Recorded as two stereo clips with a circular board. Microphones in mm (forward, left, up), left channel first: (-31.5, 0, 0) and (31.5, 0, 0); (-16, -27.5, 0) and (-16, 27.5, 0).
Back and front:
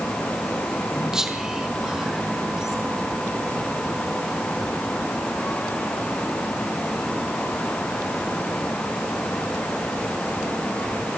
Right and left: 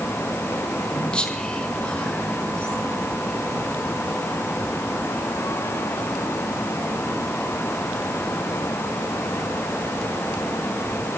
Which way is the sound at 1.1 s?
65° right.